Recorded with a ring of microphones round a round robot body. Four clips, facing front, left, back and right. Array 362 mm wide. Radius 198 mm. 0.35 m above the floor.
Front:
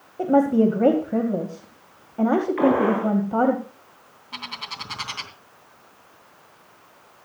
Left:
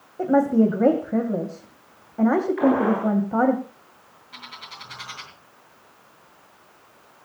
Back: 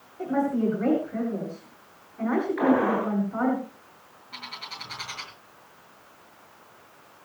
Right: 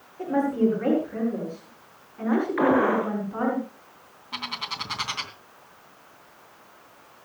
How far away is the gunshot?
About 8 m.